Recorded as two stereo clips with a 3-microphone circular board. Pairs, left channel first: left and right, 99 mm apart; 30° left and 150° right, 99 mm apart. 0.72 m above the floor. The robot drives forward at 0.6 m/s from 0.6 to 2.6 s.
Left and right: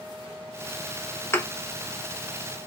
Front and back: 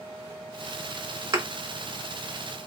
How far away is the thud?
About 0.7 m.